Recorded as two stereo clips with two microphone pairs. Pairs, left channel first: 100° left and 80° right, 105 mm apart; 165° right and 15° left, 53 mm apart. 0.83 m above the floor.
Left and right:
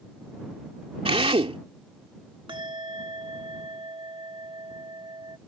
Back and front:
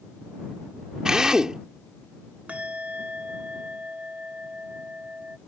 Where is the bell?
45° right.